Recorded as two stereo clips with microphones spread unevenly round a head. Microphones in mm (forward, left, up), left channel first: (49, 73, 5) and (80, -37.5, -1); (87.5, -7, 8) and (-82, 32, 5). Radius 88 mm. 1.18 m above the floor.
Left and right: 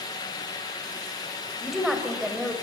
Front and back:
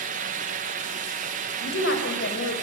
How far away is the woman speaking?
About 6 m.